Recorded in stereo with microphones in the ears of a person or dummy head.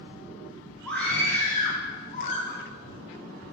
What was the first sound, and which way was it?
A scream, 10° left (ahead or behind).